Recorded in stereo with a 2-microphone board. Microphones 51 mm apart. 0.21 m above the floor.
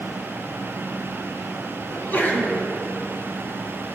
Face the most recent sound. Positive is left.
turn(degrees=45)  # may be behind; listen again after turning